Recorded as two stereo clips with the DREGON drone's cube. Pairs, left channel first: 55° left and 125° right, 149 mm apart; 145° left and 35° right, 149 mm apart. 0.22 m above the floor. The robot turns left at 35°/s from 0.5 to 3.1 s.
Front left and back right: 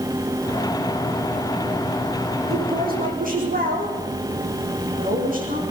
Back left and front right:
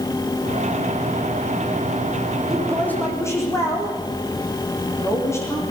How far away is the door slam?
No door slam in this recording.